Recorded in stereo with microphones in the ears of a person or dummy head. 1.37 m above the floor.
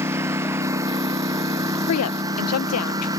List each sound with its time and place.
0.0 s a lawn mower: 10° right (ahead or behind); by 3.2 s 15° right (ahead or behind)
1.9 s a woman speaking: 80° left